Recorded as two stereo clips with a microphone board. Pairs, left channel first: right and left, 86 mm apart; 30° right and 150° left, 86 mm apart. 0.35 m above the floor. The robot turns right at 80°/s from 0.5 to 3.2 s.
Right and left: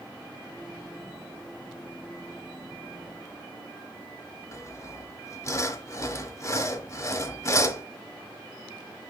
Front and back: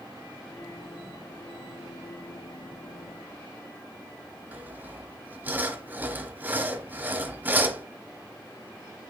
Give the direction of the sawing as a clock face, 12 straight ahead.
5 o'clock.